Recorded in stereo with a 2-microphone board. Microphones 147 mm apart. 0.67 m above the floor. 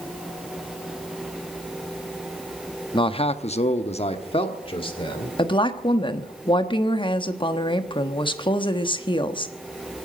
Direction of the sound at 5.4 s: 35° left (ahead or behind).